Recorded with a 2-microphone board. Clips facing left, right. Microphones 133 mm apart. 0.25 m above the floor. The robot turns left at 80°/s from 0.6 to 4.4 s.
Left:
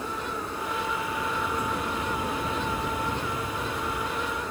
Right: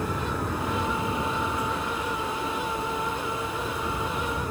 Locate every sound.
0.0 s an aircraft: 100° right; by 4.5 s 45° right